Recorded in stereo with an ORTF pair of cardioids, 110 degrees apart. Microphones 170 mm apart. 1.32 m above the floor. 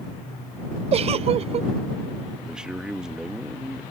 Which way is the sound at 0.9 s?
40° right.